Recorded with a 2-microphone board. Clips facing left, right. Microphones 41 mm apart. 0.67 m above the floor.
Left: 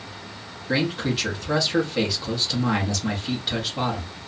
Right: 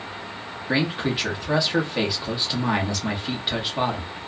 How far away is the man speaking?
About 0.9 m.